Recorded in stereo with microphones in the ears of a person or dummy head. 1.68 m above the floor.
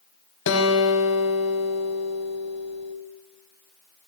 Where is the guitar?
65° left (ahead or behind), 1.1 m.